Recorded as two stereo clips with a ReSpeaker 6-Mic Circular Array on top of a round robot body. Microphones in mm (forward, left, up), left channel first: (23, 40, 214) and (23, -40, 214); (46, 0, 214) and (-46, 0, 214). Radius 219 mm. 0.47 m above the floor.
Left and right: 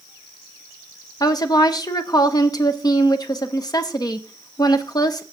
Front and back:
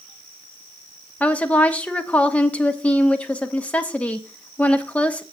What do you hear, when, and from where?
1.2 s a woman speaking: 75° left, 1.4 m